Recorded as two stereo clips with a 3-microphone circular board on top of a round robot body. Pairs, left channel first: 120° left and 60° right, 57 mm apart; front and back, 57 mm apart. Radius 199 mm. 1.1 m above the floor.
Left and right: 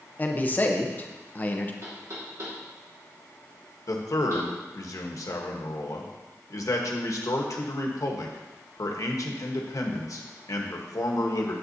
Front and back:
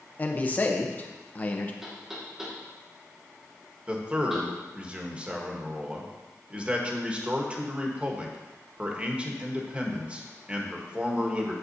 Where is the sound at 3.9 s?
110° left, 1.4 m.